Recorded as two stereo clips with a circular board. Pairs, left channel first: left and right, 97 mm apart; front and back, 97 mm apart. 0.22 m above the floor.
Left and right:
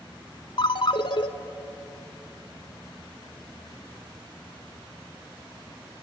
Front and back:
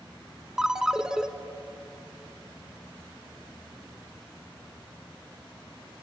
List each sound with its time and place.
0.6 s a ringtone: 95° left, 0.9 m